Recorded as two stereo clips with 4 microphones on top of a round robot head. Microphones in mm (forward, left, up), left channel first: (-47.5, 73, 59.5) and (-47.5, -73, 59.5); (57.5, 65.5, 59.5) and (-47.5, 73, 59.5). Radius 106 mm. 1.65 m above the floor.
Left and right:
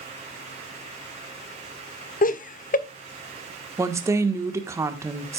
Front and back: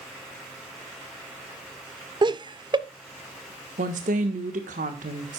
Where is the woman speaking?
160° right, 1.3 m.